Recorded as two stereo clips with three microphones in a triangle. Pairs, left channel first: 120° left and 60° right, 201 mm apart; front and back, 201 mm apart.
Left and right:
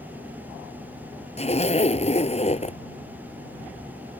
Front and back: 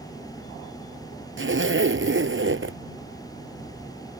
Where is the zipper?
Straight behind.